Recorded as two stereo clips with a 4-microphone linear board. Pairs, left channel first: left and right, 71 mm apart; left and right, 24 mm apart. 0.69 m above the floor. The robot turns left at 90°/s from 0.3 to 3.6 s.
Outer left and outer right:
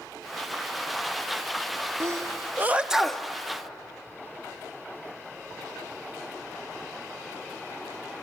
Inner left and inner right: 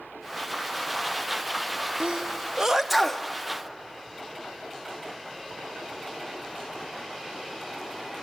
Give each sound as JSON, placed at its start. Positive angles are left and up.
{"t": 2.0, "sound": "a sneeze", "side_deg": -45, "distance_m": 0.8}